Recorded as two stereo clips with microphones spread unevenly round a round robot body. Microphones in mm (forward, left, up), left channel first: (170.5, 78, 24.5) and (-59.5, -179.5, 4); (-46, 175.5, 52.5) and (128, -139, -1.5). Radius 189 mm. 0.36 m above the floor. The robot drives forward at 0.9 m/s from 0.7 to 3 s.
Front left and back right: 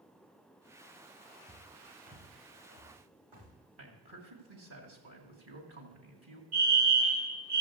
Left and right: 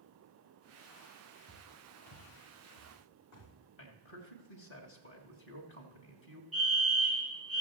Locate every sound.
1.5 s footsteps: 165° left, 6 m; by 3.5 s 170° left, 6.5 m
3.8 s a man speaking: straight behind, 2 m
6.5 s a fire alarm: 150° right, 5.5 m